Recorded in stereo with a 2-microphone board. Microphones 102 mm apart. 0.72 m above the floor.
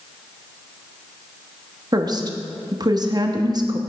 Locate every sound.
1.9 s a woman speaking: 40° right (ahead or behind), 0.9 m